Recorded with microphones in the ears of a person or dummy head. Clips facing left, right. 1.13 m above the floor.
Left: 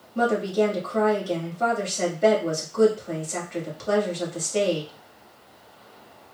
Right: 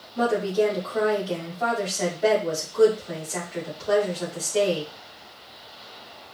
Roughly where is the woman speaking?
Left.